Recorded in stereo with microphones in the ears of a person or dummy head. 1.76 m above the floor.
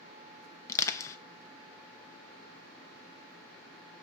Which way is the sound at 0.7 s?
20° left (ahead or behind).